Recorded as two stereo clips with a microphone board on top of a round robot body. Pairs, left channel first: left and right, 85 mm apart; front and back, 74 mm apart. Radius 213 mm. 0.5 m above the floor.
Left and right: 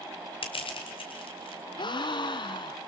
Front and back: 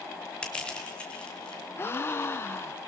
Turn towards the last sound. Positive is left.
turn(degrees=60)